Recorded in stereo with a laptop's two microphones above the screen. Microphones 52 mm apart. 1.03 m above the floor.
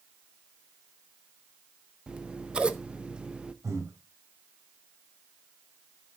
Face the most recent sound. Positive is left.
turn(degrees=-80)